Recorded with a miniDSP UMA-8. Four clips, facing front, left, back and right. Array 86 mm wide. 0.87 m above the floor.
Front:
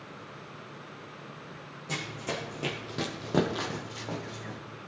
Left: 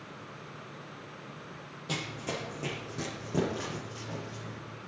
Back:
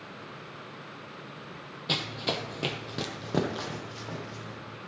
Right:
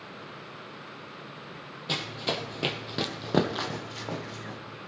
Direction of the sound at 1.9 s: 155° right.